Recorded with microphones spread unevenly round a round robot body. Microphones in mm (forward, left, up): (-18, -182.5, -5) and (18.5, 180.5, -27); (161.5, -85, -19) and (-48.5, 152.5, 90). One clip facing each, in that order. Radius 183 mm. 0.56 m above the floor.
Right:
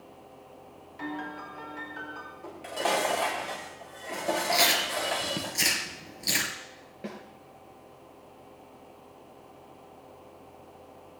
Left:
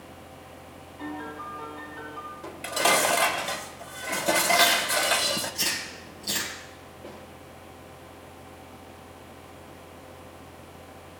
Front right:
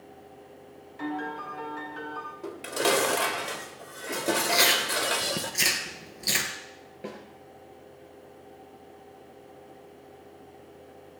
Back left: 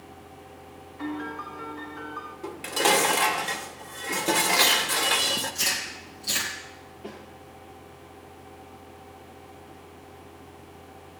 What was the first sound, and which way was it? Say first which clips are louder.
A piano: left 1 dB, back left 1 dB; 55° right.